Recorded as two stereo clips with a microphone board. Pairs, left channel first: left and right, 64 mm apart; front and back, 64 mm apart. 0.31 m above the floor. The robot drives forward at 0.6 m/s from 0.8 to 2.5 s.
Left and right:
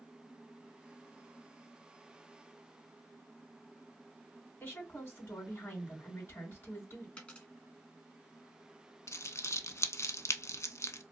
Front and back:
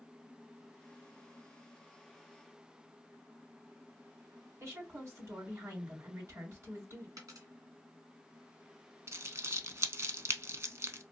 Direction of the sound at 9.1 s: 135° left.